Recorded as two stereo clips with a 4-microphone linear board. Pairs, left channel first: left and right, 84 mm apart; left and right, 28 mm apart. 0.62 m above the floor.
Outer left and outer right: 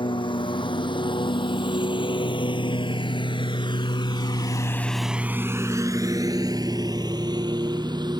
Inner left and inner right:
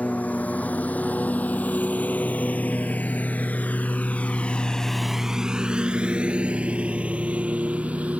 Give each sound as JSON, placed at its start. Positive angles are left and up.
{"t": 0.0, "sound": "a lawn mower", "side_deg": 65}